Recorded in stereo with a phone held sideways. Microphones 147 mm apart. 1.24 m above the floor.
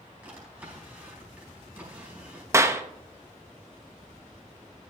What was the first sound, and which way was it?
A drawer, 10° right (ahead or behind).